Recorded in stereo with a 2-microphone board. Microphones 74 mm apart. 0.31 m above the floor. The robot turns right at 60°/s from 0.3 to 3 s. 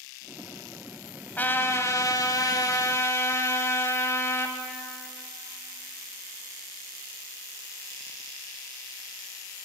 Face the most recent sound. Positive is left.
turn(degrees=130)